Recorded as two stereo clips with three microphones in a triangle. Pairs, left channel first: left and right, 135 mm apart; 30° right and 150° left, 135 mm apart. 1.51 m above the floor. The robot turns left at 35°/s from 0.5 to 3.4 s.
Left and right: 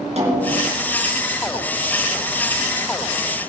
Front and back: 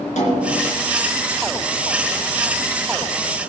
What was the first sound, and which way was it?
A snare drum, 55° right.